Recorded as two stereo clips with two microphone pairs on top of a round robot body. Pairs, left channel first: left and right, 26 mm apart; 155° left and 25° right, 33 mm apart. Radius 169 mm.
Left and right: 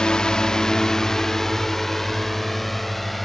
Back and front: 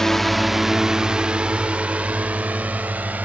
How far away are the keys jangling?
I don't hear keys jangling.